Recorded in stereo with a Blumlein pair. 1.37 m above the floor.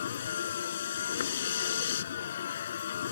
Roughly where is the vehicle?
Ahead left.